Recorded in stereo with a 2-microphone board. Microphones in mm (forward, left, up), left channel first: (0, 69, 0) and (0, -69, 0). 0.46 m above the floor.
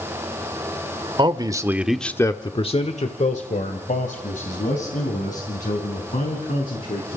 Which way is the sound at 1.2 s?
35° right (ahead or behind).